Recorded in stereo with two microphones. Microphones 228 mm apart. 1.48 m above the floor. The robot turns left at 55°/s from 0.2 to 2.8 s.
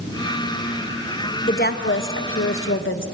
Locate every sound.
1.5 s a woman speaking: 140° left, 1.4 m; by 3.0 s 65° left, 1.4 m